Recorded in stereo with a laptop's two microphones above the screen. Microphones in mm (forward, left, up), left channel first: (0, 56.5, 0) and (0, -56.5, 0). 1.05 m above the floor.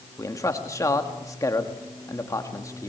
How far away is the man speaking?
About 1.7 m.